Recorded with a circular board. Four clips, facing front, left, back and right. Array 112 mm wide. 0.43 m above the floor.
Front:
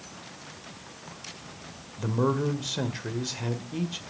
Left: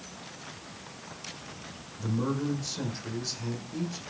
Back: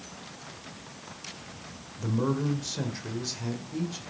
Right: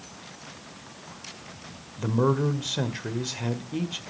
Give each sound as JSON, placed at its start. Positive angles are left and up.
{"t": 2.0, "sound": "a man speaking", "azimuth_deg": -60, "distance_m": 1.9}